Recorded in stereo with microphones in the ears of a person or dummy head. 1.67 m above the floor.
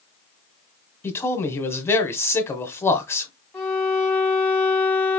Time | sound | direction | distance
1.0 | a man speaking | 15° left (ahead or behind) | 1.2 m
3.5 | a violin | centre (ahead or behind) | 1.4 m